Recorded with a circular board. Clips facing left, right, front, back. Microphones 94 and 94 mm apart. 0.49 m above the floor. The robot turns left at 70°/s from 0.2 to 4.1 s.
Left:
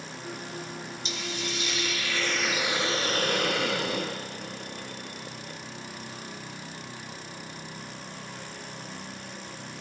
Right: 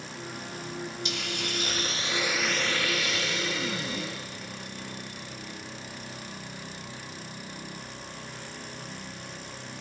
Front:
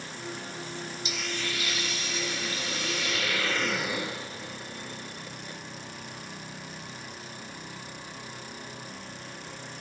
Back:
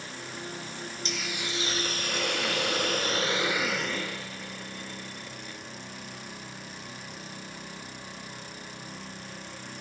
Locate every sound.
1.1 s a hiss: 80° right, 0.7 m; by 5.6 s 65° left, 0.7 m